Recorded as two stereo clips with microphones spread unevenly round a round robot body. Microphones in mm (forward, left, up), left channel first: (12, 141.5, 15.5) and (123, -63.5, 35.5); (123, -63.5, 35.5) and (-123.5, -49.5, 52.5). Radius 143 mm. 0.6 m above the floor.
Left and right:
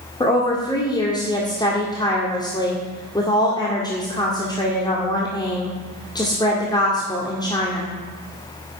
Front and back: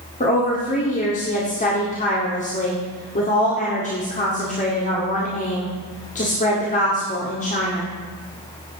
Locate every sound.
0.2 s a woman speaking: 50° left, 1.9 m